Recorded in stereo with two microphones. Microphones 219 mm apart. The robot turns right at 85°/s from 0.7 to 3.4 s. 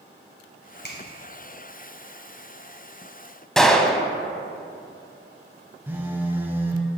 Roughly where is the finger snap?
Left.